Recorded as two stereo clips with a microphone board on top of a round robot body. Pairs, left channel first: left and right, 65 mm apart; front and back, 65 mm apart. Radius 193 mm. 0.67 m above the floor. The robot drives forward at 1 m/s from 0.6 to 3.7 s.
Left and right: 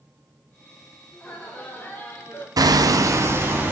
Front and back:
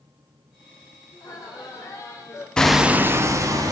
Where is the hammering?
80° right, 0.7 m; by 3.7 s 150° right, 1.2 m.